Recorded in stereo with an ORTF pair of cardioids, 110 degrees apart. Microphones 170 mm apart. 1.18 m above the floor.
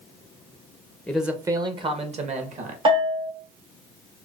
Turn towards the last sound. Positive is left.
turn(degrees=-35)